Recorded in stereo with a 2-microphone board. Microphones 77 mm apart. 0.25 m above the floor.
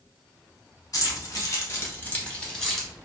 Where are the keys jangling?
50° left (ahead or behind), 1.1 m; by 2.9 s centre (ahead or behind), 1.2 m.